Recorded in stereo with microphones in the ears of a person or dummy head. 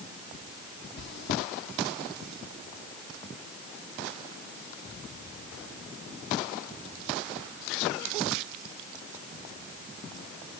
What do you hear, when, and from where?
1.0 s chewing: 65° left (ahead or behind), 1.8 m